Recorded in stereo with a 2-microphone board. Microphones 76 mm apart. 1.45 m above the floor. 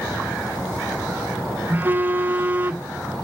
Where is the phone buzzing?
25° right (ahead or behind), 1.1 m.